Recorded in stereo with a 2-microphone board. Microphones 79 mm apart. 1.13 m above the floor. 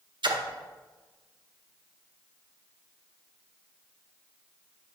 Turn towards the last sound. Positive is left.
turn(degrees=-75)  # may be behind; listen again after turning